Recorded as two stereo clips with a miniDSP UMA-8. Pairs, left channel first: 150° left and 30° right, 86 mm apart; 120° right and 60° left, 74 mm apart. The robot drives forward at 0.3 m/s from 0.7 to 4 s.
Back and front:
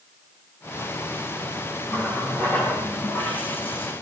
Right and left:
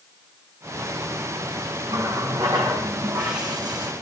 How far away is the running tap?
About 4.5 m.